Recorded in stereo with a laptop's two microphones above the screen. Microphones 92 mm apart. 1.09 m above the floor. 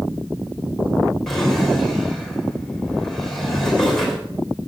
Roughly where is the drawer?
Centre.